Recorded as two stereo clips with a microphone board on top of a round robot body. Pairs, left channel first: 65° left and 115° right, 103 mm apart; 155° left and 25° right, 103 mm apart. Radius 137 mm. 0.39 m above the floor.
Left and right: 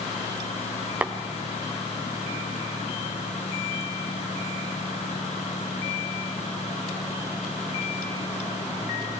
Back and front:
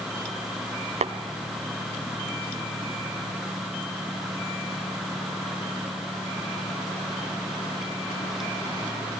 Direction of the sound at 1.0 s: 35° right.